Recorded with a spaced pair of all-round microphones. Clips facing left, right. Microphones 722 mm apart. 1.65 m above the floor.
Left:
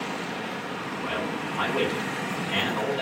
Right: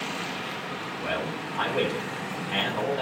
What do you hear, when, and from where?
1.0 s a man speaking: 25° right (ahead or behind), 9 m